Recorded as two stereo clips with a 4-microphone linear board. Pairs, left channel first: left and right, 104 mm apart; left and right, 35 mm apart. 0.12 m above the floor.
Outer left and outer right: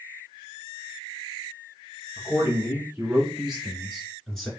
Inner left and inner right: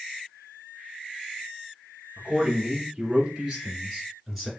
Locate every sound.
2.2 s a man speaking: 20° right (ahead or behind), 1.6 m; by 4.5 s 5° left (ahead or behind), 1.8 m